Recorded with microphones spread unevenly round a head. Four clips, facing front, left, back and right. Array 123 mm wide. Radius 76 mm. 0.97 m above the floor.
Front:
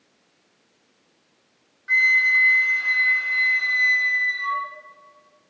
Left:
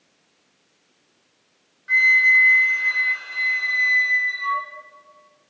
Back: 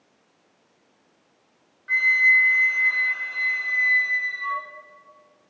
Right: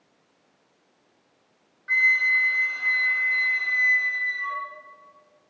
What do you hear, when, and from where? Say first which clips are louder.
1.9 s a flute: left 5 dB, even; 115° right, 1.7 m